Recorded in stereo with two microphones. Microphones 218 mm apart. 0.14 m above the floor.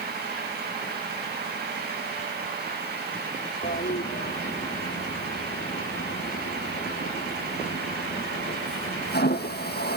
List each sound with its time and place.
3.6 s a toilet flushing: 50° left (ahead or behind), 1.7 m